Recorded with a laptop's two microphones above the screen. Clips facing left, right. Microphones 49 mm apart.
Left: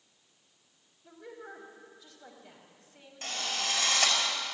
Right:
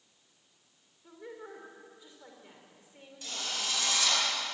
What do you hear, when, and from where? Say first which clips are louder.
1.0 s a woman speaking: even; 20° right (ahead or behind), 4 m
3.2 s a drill: left 3 dB; 50° left (ahead or behind), 5.5 m